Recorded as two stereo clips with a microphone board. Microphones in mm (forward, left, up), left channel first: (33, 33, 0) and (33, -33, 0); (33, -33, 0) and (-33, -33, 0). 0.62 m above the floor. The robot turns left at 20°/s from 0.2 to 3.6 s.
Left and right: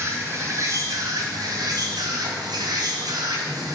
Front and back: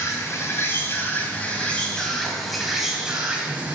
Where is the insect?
45° right, 2 m; by 3.8 s 110° right, 2 m.